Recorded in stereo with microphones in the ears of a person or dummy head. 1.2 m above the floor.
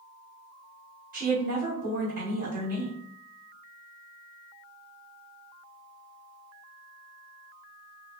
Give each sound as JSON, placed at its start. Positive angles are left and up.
{"t": 1.1, "sound": "a woman speaking", "side_deg": -40, "distance_m": 1.5}